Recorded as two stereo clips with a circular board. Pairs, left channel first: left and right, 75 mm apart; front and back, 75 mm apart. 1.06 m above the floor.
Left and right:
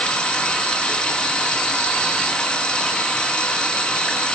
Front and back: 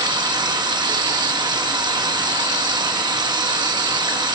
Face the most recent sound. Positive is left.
turn(degrees=165)